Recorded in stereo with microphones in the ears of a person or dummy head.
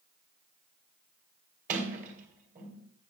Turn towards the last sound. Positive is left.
turn(degrees=-50)  # may be behind; listen again after turning